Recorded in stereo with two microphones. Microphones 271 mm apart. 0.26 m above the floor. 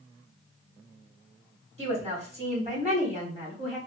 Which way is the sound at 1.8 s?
25° right (ahead or behind).